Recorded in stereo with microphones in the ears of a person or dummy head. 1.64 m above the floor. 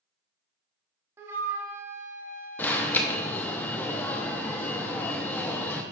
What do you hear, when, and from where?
1.2 s a flute: 20° right (ahead or behind), 1.7 m
2.6 s an alarm: 5° left (ahead or behind), 0.9 m